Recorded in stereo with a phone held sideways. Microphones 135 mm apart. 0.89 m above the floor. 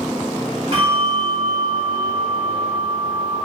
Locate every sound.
0.7 s a bell: 55° right (ahead or behind), 2 m